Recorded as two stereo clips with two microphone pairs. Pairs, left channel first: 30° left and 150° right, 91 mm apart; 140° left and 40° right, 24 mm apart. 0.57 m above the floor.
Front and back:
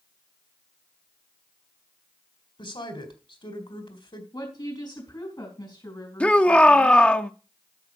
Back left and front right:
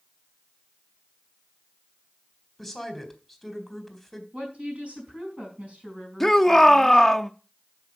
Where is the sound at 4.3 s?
10° right, 4.5 m.